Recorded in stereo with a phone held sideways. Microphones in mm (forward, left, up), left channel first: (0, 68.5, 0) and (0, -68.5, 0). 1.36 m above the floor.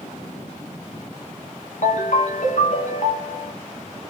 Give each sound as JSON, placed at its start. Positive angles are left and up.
{"t": 1.8, "sound": "a ringtone", "side_deg": 60, "distance_m": 0.7}